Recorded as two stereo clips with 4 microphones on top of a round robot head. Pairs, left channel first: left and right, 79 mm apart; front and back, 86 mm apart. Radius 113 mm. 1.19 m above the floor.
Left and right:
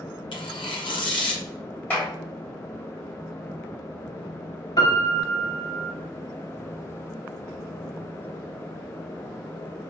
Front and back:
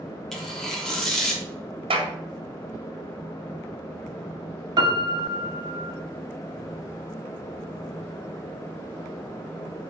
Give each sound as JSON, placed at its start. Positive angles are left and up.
{"t": 0.3, "sound": "tearing paper", "azimuth_deg": 90, "distance_m": 3.5}
{"t": 1.9, "sound": "a clap", "azimuth_deg": 165, "distance_m": 2.5}
{"t": 4.8, "sound": "a piano", "azimuth_deg": 140, "distance_m": 2.0}